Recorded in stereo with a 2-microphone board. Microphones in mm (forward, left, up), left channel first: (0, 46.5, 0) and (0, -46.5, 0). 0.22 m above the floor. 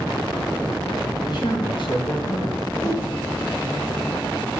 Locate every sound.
1.2 s a man speaking: 50° left (ahead or behind), 3 m; by 2.5 s 60° left (ahead or behind), 4.5 m
2.6 s a whoosh: 35° left (ahead or behind), 7 m